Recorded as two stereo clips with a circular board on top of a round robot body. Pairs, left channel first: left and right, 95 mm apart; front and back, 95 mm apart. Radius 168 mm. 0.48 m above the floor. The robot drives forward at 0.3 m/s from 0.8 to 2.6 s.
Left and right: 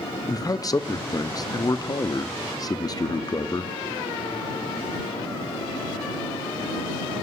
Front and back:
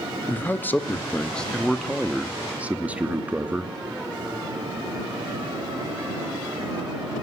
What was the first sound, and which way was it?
A man speaking, 65° left.